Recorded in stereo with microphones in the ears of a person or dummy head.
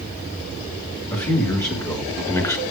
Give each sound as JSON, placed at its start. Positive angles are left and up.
{"t": 1.1, "sound": "a man speaking", "side_deg": 15, "distance_m": 3.0}